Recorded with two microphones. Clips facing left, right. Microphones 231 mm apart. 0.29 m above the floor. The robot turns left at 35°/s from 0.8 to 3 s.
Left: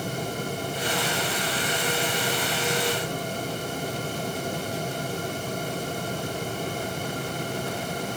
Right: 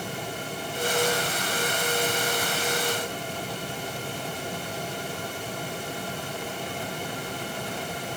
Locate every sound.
Only background noise.